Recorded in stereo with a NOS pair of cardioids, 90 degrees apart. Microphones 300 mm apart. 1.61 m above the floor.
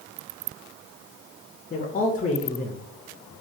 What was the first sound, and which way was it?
A man speaking, 25° left.